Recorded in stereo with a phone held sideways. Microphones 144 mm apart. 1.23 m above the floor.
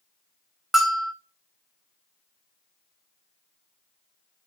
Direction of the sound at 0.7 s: Centre (ahead or behind).